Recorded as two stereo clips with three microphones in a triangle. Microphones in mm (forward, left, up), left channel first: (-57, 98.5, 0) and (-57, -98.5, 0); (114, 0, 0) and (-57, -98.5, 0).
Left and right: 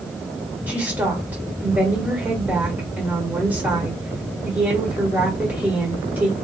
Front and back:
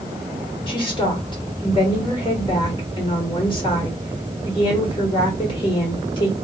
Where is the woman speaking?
15° right, 1.6 m.